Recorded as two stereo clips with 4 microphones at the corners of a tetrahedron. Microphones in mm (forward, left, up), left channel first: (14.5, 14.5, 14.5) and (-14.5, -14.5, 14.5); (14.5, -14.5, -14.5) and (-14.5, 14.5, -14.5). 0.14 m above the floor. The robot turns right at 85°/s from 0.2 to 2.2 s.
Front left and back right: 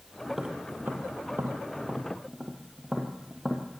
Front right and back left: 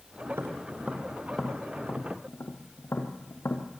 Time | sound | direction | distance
0.3 | tapping | 140° left | 2.5 m